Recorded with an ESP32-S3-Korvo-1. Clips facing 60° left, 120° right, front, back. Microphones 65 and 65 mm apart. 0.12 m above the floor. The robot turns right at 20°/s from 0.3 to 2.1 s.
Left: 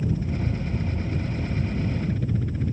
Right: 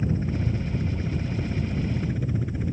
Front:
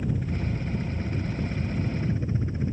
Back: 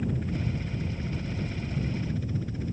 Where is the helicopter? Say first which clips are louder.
Even, front 1 dB; 85° right; by 2.7 s 45° right.